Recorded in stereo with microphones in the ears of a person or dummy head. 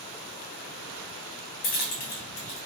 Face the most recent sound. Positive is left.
turn(degrees=45)  # may be behind; listen again after turning